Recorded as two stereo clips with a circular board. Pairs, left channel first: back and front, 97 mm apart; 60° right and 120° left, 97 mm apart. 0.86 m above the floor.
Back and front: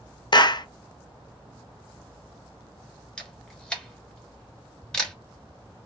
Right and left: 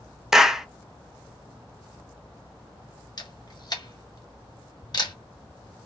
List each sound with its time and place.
0.3 s a clap: 155° right, 0.6 m
3.2 s a camera shutter: 100° right, 1.4 m